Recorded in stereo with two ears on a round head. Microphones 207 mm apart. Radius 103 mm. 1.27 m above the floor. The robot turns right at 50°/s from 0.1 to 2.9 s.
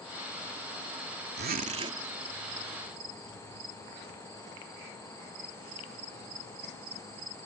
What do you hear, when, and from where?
1.4 s a zipper: 45° right; by 2.0 s 15° right